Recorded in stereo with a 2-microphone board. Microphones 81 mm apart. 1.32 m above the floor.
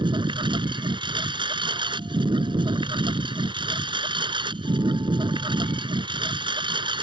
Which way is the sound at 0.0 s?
80° right.